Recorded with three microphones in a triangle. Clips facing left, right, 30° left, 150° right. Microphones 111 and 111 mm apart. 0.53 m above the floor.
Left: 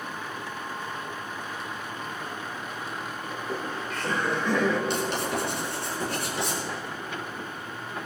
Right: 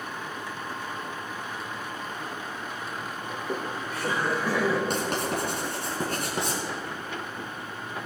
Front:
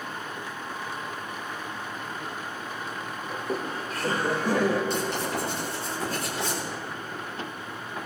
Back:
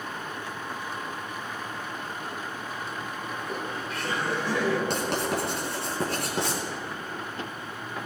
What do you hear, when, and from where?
3.3 s laughter: 25° right, 1.2 m; by 4.8 s 10° right, 2 m
4.9 s writing: 130° right, 5 m